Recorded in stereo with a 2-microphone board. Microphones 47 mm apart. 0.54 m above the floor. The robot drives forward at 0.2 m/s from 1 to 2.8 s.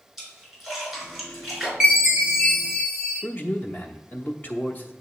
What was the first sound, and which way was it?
A splash, 5° right (ahead or behind).